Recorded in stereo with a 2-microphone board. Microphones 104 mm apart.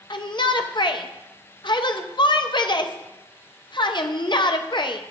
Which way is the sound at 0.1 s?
50° left (ahead or behind).